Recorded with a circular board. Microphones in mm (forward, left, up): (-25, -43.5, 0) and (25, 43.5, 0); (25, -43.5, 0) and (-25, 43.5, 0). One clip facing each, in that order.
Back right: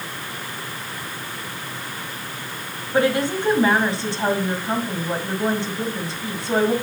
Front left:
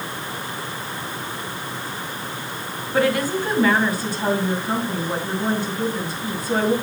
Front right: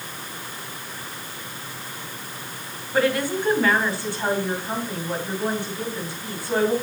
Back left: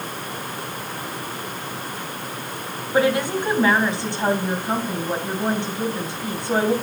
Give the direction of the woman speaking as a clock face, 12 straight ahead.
6 o'clock.